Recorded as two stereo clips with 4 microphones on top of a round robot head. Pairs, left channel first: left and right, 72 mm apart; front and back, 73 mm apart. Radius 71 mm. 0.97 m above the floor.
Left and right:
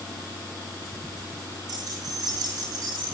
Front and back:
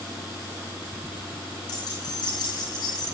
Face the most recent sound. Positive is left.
turn(degrees=-45)